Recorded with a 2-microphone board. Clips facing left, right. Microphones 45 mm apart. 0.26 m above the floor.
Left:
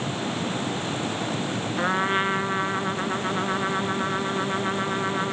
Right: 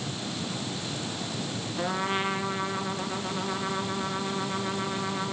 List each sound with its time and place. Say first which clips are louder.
1.8 s a trumpet: left 5 dB; 45° left (ahead or behind), 1.8 m